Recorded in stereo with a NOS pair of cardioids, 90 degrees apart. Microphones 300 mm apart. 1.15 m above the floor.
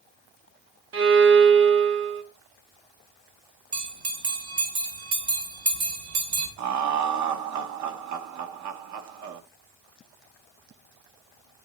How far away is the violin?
About 0.9 m.